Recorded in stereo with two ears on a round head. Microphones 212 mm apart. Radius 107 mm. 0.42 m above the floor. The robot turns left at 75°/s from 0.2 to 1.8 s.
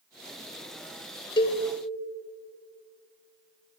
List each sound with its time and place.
1.4 s a cowbell: 20° left (ahead or behind), 0.9 m; by 1.6 s 30° left (ahead or behind), 0.9 m